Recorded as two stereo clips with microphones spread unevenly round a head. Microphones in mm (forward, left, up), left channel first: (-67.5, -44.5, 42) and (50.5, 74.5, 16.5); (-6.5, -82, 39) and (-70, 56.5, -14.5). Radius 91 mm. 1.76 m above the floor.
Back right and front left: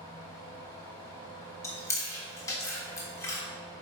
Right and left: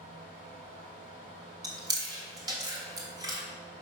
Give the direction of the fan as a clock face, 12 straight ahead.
7 o'clock.